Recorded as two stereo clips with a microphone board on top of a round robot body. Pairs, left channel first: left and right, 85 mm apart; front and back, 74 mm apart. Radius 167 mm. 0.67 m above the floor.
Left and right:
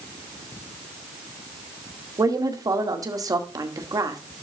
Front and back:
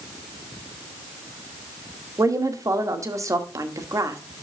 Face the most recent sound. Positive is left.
turn(degrees=-135)